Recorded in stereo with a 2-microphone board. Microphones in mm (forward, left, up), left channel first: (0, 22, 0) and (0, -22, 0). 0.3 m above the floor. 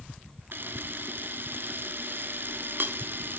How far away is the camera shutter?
About 0.6 m.